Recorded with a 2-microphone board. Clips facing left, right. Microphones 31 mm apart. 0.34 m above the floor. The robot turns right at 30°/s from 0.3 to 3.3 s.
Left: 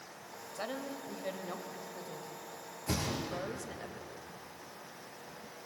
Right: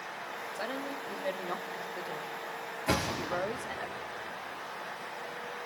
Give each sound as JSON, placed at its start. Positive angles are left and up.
{"t": 0.6, "sound": "a woman speaking", "azimuth_deg": -170, "distance_m": 1.4}
{"t": 2.9, "sound": "a thud", "side_deg": -45, "distance_m": 3.5}